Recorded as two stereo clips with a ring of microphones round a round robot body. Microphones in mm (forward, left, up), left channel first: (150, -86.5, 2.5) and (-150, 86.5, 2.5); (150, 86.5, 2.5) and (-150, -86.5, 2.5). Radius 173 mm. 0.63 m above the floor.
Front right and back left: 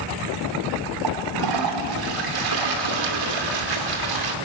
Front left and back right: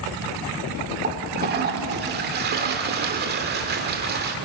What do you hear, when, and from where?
1.0 s a toilet flushing: 150° left, 2 m